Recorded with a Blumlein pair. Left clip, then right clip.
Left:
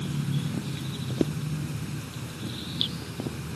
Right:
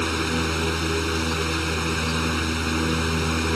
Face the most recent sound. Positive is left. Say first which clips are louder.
# right 12 dB
turn(degrees=-50)